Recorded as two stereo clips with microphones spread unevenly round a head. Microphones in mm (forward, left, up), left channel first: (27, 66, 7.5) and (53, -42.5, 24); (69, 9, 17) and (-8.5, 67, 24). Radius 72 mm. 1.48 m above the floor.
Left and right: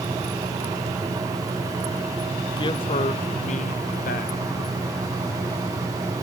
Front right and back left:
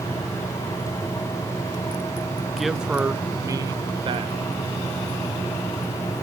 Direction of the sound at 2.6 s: 55° left.